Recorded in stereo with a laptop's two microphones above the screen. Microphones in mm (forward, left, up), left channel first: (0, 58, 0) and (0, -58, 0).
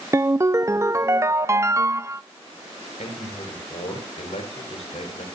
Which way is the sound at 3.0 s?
70° left (ahead or behind).